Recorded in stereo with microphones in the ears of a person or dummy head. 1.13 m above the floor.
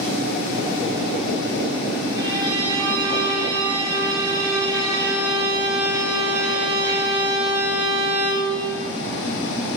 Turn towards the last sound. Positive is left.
turn(degrees=-25)  # may be behind; listen again after turning